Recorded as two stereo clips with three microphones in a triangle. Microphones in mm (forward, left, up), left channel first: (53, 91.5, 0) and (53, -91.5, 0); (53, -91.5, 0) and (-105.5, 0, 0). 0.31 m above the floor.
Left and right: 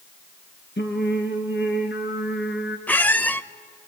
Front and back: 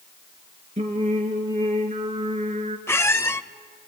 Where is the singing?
100° left, 2.5 m.